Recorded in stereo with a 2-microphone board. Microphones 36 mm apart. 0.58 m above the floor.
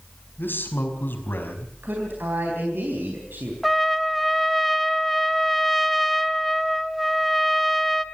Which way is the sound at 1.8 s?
80° right.